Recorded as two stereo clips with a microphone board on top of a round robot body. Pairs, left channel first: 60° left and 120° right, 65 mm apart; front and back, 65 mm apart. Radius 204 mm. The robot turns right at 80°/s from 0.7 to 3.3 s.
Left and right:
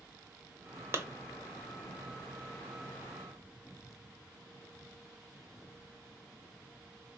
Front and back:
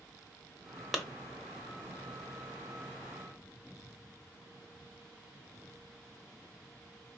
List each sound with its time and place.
0.9 s a clap: 95° right, 1.1 m; by 1.0 s 85° right, 1.1 m